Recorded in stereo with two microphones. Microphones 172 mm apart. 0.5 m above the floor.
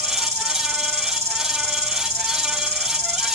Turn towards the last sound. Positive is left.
turn(degrees=-40)  # may be behind; listen again after turning